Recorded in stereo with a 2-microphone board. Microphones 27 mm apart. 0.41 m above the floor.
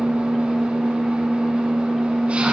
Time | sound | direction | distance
0.0 | an engine running | 50° right (ahead or behind) | 1.6 m